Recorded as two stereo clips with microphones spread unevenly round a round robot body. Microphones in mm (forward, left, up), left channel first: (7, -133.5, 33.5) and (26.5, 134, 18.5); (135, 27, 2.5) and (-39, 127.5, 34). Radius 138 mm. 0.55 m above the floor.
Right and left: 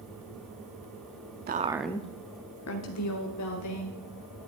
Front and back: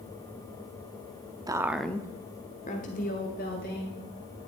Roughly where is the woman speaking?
Left.